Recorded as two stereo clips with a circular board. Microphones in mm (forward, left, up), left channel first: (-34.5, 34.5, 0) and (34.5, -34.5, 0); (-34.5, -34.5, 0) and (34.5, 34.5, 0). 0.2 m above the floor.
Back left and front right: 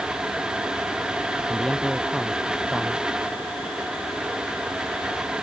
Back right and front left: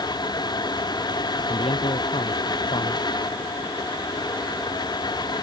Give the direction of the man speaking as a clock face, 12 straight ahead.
5 o'clock.